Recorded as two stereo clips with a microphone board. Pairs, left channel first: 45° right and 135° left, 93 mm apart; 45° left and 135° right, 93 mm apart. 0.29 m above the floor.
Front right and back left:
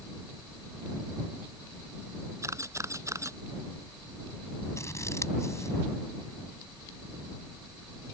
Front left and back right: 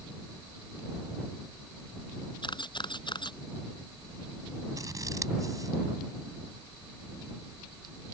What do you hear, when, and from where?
2.4 s a camera shutter: 80° left
4.8 s scissors: 95° right